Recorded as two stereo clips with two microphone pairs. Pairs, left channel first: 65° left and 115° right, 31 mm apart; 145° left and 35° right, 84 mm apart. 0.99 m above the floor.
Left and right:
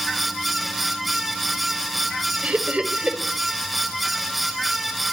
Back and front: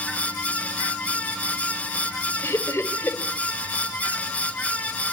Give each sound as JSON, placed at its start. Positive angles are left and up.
{"t": 2.4, "sound": "laughter", "azimuth_deg": -150, "distance_m": 4.0}